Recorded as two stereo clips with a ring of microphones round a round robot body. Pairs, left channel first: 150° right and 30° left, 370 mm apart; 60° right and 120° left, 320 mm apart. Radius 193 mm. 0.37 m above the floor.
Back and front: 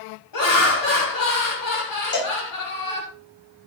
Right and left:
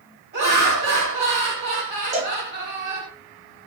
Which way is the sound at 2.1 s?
175° left.